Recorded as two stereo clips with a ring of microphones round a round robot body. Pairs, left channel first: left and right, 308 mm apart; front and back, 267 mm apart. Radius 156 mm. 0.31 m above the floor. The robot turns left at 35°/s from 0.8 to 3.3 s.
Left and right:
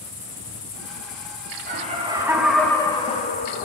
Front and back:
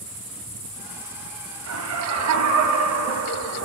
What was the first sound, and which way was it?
Laughter, 150° right.